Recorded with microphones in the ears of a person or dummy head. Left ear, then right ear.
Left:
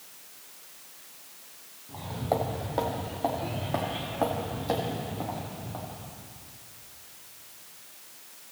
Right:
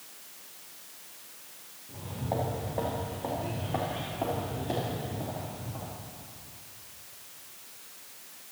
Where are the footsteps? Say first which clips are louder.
Left 5 dB; 45° left (ahead or behind), 2.5 m; by 6.3 s 25° left (ahead or behind), 3.5 m.